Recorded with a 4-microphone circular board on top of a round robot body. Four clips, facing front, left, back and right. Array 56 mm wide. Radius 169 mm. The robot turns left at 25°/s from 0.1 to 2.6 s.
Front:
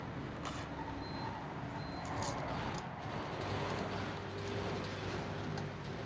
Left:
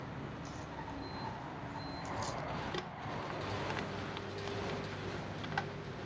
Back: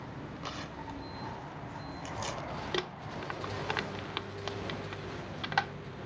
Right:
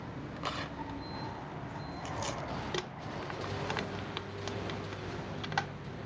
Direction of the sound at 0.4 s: 95° right.